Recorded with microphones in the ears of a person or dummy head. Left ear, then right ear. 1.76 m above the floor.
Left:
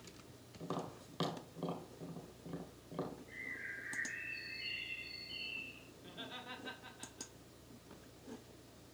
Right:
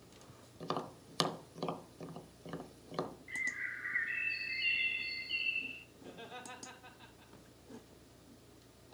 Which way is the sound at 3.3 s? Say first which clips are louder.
Right 7 dB; 50° right (ahead or behind).